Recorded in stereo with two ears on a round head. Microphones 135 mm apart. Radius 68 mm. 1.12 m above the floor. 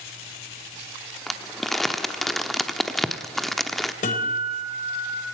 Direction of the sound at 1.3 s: Centre (ahead or behind).